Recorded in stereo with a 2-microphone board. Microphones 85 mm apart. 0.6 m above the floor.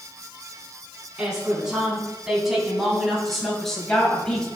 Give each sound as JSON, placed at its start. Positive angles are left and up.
{"t": 1.2, "sound": "a woman speaking", "side_deg": -10, "distance_m": 5.0}